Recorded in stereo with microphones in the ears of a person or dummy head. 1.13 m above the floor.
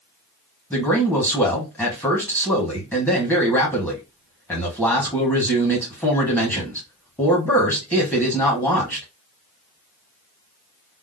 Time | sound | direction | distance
0.7 | a man speaking | 10° left (ahead or behind) | 1.2 m